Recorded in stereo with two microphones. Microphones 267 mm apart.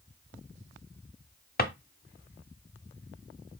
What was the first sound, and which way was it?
A drawer, 35° left (ahead or behind).